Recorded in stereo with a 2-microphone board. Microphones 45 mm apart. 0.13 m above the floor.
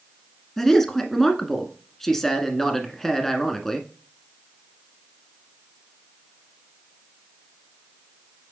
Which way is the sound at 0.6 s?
10° left (ahead or behind).